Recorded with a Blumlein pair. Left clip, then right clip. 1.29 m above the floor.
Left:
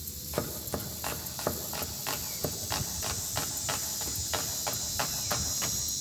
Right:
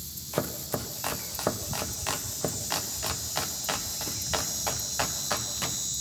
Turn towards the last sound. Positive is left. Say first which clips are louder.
# right 3 dB
turn(degrees=-10)